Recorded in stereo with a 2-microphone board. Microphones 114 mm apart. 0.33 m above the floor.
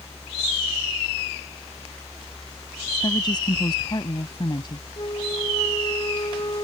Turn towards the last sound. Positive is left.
turn(degrees=40)  # may be behind; listen again after turning